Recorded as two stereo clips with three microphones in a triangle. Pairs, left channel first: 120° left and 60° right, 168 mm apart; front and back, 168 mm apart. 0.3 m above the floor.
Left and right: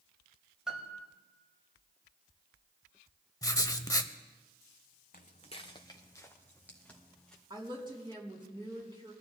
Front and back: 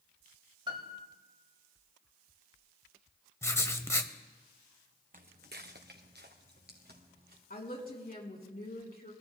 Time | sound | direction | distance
0.7 | a piano | 145° right | 1.4 m
3.4 | writing | 60° left | 0.7 m
5.1 | footsteps | 150° left | 1.1 m
7.5 | a woman speaking | straight ahead | 3.5 m